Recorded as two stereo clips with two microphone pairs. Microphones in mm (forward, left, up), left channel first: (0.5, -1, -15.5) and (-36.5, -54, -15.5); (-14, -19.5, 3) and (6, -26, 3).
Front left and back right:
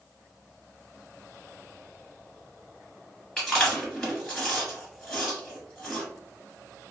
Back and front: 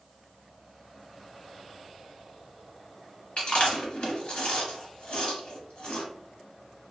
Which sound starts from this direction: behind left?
Chewing, at 3.4 s.